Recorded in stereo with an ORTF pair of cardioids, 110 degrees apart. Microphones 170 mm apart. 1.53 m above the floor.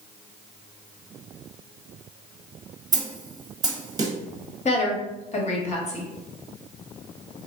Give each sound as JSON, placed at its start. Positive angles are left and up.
{"t": 2.9, "sound": "a snare drum", "azimuth_deg": -25, "distance_m": 0.7}
{"t": 4.7, "sound": "a woman speaking", "azimuth_deg": 45, "distance_m": 1.2}